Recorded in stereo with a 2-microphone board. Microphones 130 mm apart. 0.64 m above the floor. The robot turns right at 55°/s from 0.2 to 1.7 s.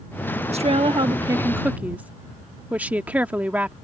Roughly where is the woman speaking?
Right.